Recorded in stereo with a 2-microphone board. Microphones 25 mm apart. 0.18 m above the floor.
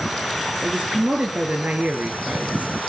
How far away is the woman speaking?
About 2.5 m.